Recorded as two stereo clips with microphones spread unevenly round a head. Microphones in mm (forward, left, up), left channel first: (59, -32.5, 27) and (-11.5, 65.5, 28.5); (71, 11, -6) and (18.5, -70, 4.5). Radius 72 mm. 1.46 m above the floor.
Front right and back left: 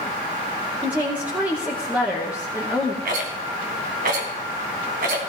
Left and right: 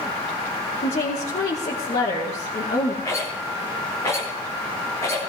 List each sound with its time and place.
0.8 s a woman speaking: 50° left, 2 m
3.0 s a rattle: 130° left, 2.5 m